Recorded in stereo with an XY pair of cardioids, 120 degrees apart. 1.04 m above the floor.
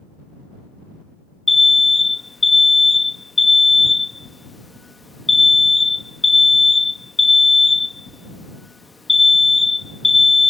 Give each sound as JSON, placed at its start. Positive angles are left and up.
{"t": 1.5, "sound": "an alarm", "azimuth_deg": 15}